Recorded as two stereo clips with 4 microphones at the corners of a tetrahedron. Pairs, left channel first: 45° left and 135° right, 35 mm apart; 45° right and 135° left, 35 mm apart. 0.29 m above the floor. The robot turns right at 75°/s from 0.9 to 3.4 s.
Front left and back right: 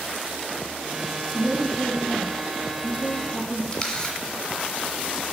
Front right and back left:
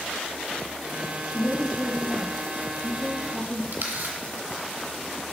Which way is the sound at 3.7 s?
120° left.